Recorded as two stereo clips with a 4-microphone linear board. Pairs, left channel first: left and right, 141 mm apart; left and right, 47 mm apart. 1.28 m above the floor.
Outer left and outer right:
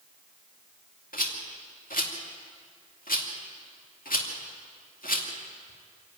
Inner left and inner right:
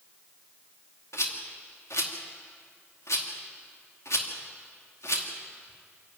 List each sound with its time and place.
1.1 s a rattle: 85° left, 2.5 m